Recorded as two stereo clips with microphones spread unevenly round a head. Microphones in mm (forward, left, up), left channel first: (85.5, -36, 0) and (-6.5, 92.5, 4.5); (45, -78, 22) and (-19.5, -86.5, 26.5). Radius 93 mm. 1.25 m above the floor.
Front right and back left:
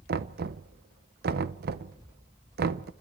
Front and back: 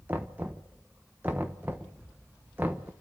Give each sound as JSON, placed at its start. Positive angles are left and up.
{"t": 0.1, "sound": "knocking", "azimuth_deg": 115, "distance_m": 0.9}